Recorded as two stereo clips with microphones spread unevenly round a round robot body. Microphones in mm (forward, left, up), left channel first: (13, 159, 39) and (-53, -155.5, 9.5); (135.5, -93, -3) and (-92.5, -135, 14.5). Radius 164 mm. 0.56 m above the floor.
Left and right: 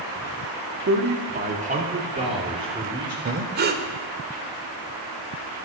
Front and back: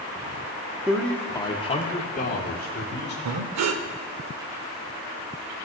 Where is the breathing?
165° right, 0.7 m.